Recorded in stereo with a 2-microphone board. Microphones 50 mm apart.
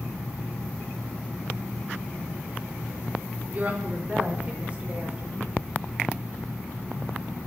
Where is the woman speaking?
30° right (ahead or behind), 4.5 m; by 5.7 s 20° right (ahead or behind), 7 m.